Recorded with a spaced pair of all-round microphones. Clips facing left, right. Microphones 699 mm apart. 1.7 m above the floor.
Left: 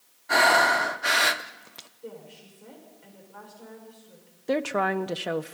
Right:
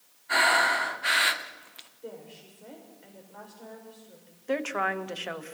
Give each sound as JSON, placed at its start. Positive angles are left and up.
{"t": 0.3, "sound": "breathing", "side_deg": 70, "distance_m": 0.8}
{"t": 2.0, "sound": "a woman speaking", "side_deg": 35, "distance_m": 7.0}
{"t": 4.5, "sound": "a woman speaking", "side_deg": 65, "distance_m": 0.9}